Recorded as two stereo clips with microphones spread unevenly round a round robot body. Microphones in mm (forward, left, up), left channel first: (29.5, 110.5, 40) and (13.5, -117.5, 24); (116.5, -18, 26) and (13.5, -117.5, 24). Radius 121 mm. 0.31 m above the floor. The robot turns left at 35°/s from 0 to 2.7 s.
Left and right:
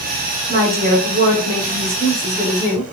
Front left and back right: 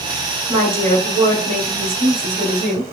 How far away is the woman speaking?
About 1.5 m.